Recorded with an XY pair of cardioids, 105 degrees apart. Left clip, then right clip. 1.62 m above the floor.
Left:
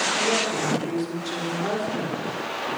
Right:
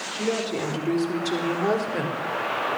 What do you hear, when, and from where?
0.1 s a woman speaking: 35° right, 4.5 m; by 2.2 s 60° right, 3.5 m